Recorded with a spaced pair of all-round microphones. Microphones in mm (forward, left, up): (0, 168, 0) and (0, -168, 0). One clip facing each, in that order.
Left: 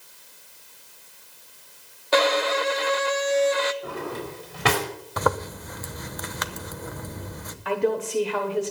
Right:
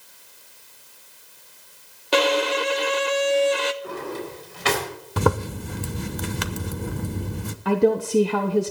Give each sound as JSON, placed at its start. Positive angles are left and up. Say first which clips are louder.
{"t": 2.1, "sound": "a violin", "louder": "right 1 dB", "side_deg": -40, "distance_m": 0.6}
{"t": 3.8, "sound": "a drawer", "louder": "right 1 dB", "side_deg": 65, "distance_m": 4.0}
{"t": 5.2, "sound": "a zipper", "louder": "right 4 dB", "side_deg": -40, "distance_m": 0.8}
{"t": 7.7, "sound": "a woman speaking", "louder": "right 5 dB", "side_deg": -50, "distance_m": 1.0}